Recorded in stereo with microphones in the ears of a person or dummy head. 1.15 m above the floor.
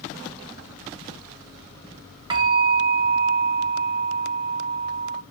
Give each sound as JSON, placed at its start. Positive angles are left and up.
{"t": 2.3, "sound": "a bell", "side_deg": -25, "distance_m": 0.8}